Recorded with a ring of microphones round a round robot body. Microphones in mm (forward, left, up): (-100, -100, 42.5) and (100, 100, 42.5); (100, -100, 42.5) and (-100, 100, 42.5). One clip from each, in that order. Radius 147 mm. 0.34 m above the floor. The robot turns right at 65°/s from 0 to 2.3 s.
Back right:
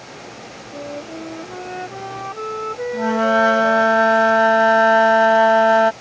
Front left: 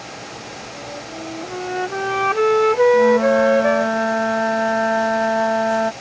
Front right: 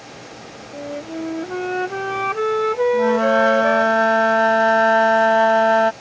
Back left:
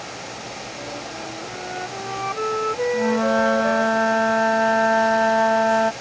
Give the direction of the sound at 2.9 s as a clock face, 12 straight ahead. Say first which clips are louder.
Front left 3 dB, front right 3 dB; 3 o'clock.